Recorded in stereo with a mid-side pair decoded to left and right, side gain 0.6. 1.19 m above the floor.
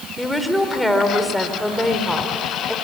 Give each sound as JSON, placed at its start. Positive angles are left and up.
{"t": 0.2, "sound": "a woman speaking", "azimuth_deg": 0, "distance_m": 3.5}